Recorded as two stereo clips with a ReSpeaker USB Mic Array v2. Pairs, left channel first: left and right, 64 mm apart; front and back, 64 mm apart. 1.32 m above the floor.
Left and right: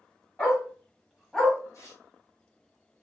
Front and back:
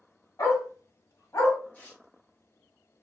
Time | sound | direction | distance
0.4 | a dog barking | 25° left | 1.6 m
1.7 | tearing paper | 60° left | 1.2 m